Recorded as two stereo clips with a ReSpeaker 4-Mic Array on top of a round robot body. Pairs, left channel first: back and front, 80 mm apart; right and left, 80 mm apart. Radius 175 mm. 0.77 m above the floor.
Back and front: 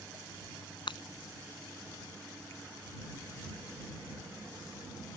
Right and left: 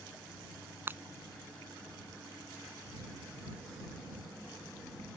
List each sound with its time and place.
0.9 s breaking glass: 155° left